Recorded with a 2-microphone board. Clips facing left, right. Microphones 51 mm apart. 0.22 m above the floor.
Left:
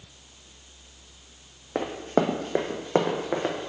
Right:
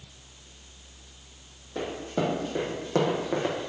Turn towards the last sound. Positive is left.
turn(degrees=15)  # may be behind; listen again after turning